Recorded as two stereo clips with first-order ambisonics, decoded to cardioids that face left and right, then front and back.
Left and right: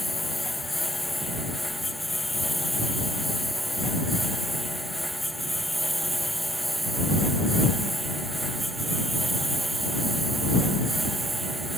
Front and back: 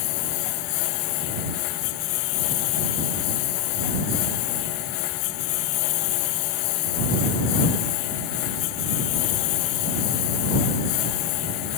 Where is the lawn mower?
5° left; by 11.8 s 10° right.